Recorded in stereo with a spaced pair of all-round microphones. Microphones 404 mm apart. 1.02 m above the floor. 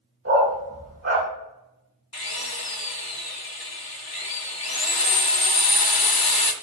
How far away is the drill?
About 0.7 m.